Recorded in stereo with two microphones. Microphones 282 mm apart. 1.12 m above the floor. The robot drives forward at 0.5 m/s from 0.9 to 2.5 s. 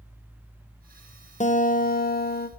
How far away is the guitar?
About 0.8 m.